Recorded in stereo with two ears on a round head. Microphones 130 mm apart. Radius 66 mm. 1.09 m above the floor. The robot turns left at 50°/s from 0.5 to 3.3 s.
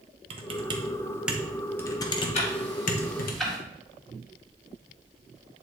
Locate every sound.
0.3 s typing on a keyboard: 40° right (ahead or behind), 0.9 m; by 3.3 s 65° left (ahead or behind), 0.9 m
2.3 s ticking: 45° left (ahead or behind), 2.0 m; by 3.6 s centre (ahead or behind), 2.0 m